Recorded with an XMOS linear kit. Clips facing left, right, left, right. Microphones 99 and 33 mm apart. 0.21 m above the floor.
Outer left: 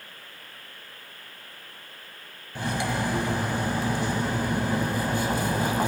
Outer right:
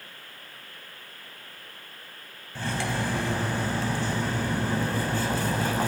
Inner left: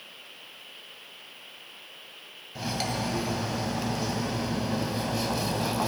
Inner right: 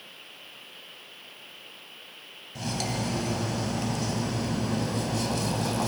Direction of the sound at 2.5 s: 15° left (ahead or behind).